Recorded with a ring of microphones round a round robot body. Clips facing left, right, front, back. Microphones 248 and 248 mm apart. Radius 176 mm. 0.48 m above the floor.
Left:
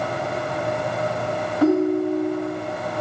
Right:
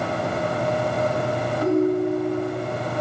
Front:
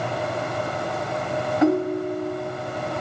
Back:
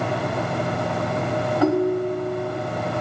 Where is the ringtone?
75° left, 2.5 m.